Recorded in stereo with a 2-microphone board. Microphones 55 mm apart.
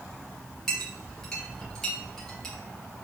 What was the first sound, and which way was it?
A clink, 10° left (ahead or behind).